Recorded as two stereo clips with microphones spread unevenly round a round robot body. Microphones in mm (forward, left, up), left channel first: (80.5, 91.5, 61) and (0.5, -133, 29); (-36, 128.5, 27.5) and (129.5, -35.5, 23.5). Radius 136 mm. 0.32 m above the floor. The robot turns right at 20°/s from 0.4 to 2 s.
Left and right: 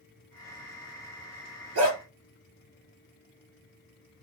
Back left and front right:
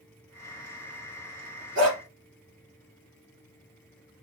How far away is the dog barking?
About 2.5 m.